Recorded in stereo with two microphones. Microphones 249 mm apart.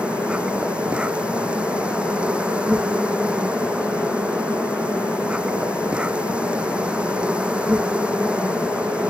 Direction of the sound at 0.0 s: 5° right (ahead or behind).